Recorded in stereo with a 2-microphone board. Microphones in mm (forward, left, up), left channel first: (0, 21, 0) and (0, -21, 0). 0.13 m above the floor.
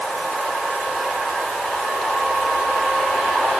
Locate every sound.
Only background noise.